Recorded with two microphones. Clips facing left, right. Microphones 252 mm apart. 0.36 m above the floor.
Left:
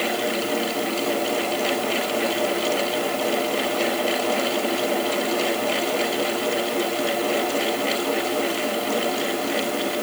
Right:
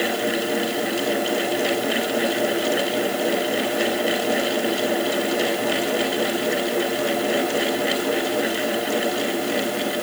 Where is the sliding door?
I don't hear a sliding door.